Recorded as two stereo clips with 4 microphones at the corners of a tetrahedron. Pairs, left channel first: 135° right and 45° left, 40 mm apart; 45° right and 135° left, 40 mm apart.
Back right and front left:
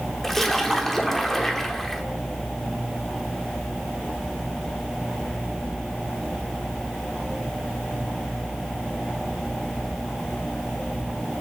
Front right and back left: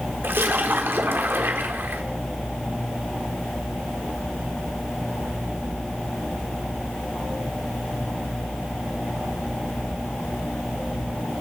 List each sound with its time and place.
0.2 s a splash: 140° left, 1.1 m